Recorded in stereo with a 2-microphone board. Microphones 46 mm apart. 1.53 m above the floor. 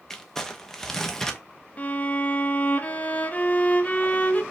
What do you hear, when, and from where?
0.1 s crumpling: 5° left (ahead or behind), 0.7 m
1.8 s a violin: 30° left (ahead or behind), 0.5 m